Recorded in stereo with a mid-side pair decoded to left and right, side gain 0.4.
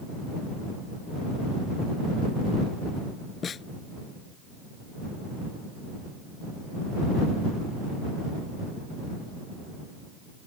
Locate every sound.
3.4 s a snare drum: 55° left